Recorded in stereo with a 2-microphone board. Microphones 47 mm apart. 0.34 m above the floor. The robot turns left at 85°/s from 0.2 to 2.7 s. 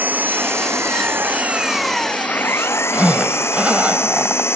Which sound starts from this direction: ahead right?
An engine running, at 0.0 s.